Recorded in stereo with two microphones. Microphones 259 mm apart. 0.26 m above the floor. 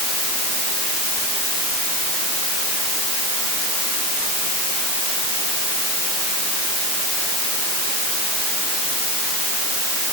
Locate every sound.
Only background noise.